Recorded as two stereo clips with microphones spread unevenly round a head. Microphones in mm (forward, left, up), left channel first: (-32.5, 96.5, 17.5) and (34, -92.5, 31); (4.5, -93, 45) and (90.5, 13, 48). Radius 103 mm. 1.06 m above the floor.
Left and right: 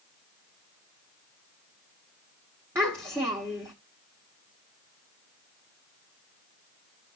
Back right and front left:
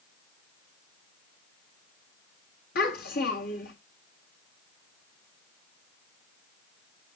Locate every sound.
2.8 s a child speaking: 145° right, 1.6 m